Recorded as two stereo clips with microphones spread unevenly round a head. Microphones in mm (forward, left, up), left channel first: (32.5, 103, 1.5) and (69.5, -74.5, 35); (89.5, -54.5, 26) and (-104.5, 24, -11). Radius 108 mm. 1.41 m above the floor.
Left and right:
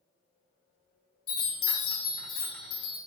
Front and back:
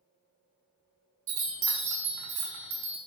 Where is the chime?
155° left, 0.8 m.